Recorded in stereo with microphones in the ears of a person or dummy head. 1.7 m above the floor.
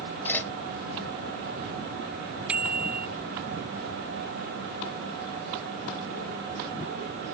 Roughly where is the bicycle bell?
Centre.